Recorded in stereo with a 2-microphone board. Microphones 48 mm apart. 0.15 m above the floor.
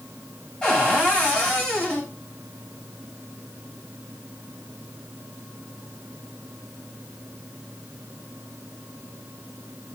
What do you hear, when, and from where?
0.6 s a cupboard door: 20° left (ahead or behind), 8.5 m